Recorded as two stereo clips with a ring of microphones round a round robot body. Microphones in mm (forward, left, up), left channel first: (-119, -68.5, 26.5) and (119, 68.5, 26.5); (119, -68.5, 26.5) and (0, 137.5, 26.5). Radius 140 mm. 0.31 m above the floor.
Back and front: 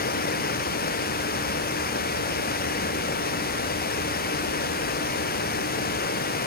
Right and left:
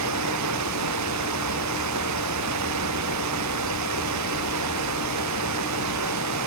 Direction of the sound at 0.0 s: 150° left.